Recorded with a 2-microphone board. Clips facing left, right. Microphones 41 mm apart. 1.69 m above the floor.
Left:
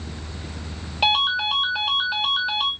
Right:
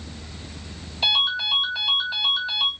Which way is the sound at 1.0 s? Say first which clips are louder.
Left 2 dB; 60° left (ahead or behind).